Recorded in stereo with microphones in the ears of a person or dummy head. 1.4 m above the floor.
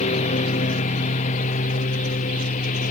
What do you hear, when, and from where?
0.0 s a lawn mower: 40° left (ahead or behind)